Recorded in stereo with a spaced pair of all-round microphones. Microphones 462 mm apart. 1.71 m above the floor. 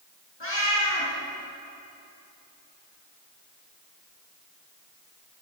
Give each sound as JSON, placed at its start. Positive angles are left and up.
{"t": 0.4, "sound": "a cat meowing", "side_deg": 70, "distance_m": 6.0}